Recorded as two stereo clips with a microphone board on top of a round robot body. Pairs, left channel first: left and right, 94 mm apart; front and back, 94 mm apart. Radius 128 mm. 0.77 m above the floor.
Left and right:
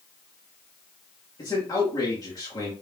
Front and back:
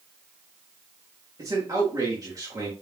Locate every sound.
1.4 s a man speaking: 135° left, 2.5 m